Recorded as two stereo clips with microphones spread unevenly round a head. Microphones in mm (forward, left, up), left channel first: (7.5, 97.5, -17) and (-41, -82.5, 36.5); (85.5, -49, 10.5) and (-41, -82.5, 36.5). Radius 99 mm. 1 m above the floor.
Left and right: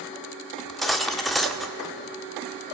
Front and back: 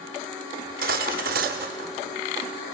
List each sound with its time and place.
0.6 s cutlery clinking: 170° left, 1.2 m